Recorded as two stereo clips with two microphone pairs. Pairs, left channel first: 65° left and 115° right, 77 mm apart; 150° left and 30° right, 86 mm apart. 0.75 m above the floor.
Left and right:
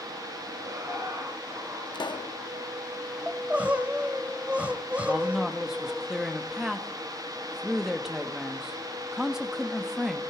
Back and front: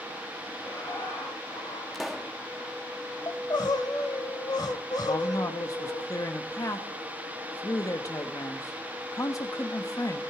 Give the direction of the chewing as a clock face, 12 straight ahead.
No chewing in this recording.